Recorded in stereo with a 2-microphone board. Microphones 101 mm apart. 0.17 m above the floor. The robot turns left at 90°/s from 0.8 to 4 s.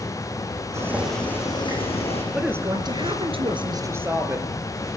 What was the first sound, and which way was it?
Boiling, 155° right.